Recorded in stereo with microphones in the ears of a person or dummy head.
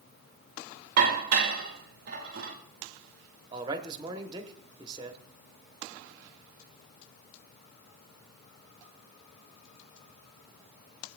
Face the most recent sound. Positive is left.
turn(degrees=-25)  # may be behind; listen again after turning